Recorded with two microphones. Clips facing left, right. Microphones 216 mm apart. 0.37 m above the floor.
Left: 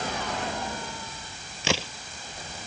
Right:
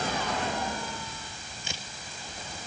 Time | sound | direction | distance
1.6 | a crack | 80° left | ?